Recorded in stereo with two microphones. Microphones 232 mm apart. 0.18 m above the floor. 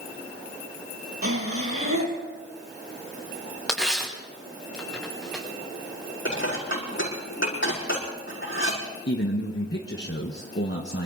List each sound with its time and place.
1.2 s breathing: 75° right (ahead or behind), 3 m
3.7 s tearing paper: centre (ahead or behind), 4.5 m
6.2 s dishes clattering: 60° left (ahead or behind), 5.5 m
9.1 s a man speaking: 55° left (ahead or behind), 1.6 m